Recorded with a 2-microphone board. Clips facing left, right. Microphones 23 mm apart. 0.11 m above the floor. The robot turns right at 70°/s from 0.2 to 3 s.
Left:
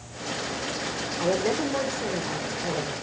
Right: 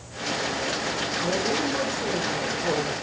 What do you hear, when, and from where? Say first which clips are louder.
1.2 s a woman speaking: left 2 dB; 115° left, 5 m; by 2.9 s 125° right, 5 m